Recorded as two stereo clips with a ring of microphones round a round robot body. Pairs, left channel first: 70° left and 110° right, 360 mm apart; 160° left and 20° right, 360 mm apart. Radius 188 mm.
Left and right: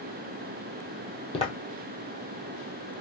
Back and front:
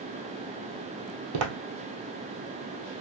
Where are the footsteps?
5° right, 1.1 m.